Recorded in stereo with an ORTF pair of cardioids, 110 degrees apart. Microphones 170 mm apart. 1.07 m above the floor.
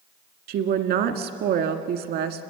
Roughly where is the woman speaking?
Right.